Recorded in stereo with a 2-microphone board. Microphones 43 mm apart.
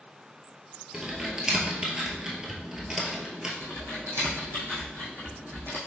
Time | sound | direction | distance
0.9 | typing on a keyboard | 15° right (ahead or behind) | 1.2 m
3.6 | typing on a keyboard | 60° right (ahead or behind) | 2.5 m